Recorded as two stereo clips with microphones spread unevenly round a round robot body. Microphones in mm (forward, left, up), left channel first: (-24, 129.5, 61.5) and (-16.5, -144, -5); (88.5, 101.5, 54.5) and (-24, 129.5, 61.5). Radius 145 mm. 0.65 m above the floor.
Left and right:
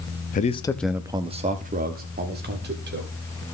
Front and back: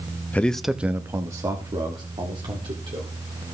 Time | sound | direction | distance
0.3 | a man speaking | 40° left | 0.6 m